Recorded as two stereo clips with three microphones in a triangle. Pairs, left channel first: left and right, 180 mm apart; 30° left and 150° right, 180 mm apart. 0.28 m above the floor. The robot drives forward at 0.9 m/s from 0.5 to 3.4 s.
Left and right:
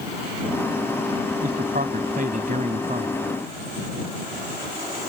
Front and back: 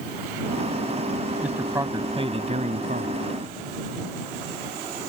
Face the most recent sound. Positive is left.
turn(degrees=-135)